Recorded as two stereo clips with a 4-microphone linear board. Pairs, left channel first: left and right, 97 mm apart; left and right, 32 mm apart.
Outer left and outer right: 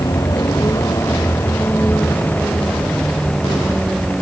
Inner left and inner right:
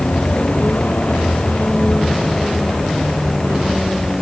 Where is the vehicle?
45° left (ahead or behind); by 4.2 s centre (ahead or behind).